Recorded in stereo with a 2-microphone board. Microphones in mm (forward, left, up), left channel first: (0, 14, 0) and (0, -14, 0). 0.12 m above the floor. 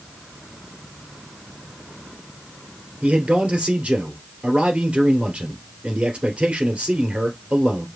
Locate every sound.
3.0 s a man speaking: 50° right (ahead or behind), 2.0 m